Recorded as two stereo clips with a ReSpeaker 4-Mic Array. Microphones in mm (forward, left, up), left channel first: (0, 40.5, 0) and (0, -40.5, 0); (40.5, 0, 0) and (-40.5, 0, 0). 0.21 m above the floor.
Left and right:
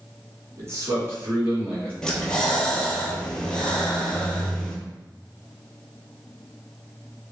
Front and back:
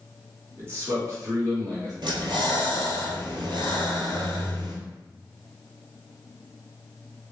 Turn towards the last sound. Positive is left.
turn(degrees=170)